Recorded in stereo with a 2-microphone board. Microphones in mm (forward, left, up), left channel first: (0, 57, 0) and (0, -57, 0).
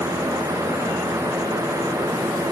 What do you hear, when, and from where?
Only background noise.